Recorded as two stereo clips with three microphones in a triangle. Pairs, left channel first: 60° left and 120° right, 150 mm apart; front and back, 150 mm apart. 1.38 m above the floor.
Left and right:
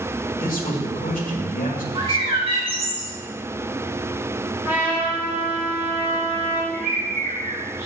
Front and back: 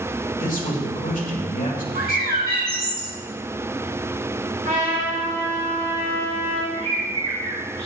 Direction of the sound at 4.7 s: 160° left.